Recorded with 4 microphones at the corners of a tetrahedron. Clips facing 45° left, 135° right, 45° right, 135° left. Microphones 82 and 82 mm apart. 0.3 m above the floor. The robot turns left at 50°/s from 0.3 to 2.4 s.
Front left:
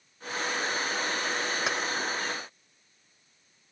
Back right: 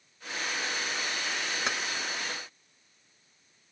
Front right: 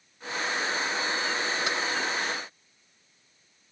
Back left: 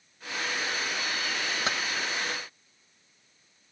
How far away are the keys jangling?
About 0.7 m.